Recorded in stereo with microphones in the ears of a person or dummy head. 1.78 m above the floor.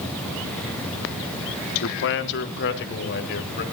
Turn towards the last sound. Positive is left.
turn(degrees=55)  # may be behind; listen again after turning